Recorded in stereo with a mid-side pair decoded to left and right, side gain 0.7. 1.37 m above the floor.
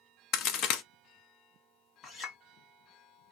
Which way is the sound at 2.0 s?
35° left.